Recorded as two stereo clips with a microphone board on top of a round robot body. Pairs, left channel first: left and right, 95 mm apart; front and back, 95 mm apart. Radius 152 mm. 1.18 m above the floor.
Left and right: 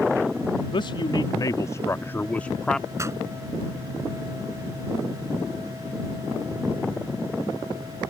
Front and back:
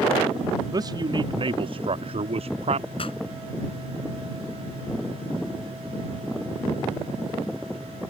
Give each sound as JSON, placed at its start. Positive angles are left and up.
{"t": 0.7, "sound": "a man speaking", "azimuth_deg": 130}
{"t": 3.0, "sound": "a pop", "azimuth_deg": -30}